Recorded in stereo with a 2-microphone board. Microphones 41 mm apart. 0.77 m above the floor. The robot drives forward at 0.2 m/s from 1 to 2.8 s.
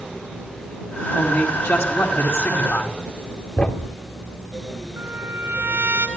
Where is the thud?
35° left (ahead or behind), 0.6 m.